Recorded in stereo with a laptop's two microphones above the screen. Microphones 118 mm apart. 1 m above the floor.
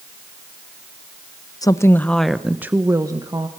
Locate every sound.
1.6 s a woman speaking: 30° left (ahead or behind), 0.8 m; by 3.5 s 35° right (ahead or behind), 1.2 m